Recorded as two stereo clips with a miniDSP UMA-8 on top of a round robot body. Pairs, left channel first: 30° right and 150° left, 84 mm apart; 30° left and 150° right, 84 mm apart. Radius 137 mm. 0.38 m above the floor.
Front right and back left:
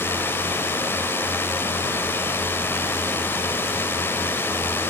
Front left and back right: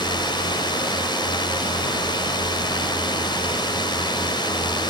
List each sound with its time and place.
0.0 s a drone: 30° left